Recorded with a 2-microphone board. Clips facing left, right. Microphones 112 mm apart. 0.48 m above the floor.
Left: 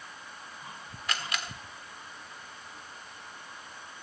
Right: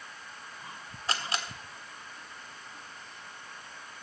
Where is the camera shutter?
30° right (ahead or behind), 1.4 m.